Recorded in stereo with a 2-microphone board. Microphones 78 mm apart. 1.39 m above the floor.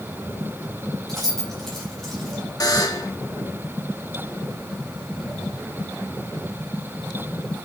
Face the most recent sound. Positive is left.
turn(degrees=50)  # may be behind; listen again after turning